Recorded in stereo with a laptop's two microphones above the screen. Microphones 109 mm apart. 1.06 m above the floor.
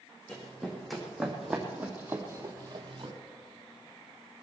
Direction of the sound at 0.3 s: 5° left (ahead or behind).